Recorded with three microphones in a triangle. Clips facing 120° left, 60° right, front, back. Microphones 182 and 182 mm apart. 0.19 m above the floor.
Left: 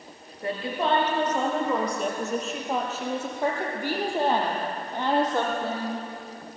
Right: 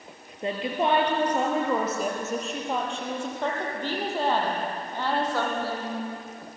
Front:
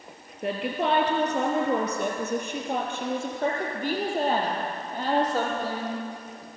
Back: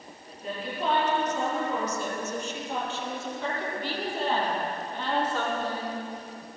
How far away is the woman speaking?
About 3.5 m.